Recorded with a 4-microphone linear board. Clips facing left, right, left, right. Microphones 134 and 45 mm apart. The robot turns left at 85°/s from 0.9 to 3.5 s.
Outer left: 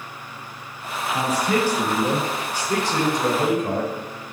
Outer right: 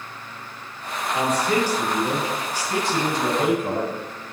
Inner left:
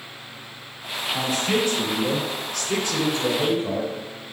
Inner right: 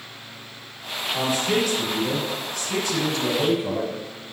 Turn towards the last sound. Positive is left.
turn(degrees=0)